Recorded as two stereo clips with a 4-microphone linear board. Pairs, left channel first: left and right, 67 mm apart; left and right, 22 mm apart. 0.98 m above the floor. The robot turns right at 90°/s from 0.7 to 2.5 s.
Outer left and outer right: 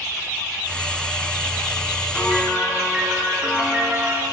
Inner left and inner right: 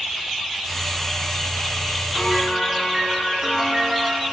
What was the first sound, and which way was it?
A piano, 155° left.